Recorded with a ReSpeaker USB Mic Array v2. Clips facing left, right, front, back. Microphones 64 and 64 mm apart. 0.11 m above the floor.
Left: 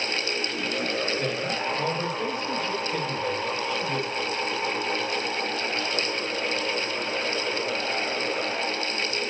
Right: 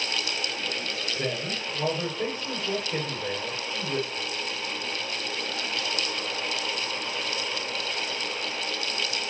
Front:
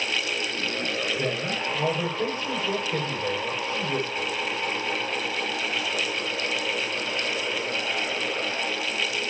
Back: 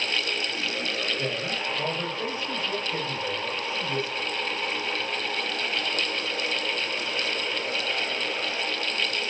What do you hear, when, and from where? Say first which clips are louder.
1.2 s a man speaking: left 3 dB, front 2 dB; 30° right, 9.5 m